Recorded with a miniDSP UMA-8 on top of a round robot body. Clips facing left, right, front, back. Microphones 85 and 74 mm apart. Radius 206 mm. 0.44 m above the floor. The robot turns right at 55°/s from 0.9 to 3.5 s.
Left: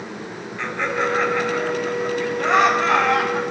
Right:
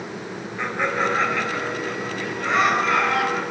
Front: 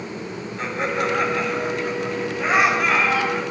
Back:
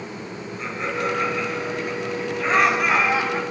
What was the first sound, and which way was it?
Laughter, 10° right.